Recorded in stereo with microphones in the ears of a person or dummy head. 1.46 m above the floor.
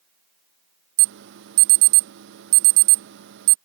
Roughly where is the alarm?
Right.